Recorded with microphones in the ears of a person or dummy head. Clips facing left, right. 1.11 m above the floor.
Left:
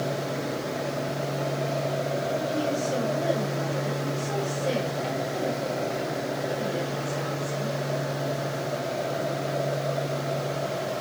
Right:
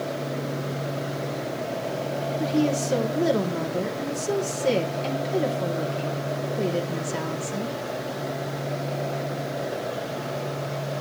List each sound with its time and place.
2.4 s a woman speaking: 75° right (ahead or behind), 2.5 m